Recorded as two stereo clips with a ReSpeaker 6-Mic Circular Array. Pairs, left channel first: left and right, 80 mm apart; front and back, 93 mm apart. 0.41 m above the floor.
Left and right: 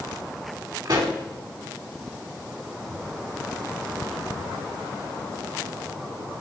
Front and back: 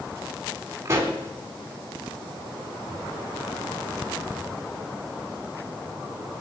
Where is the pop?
120° right, 3 m.